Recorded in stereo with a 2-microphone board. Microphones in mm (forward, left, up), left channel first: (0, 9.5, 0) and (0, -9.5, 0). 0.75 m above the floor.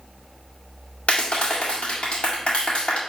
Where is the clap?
65° left (ahead or behind), 1.8 m.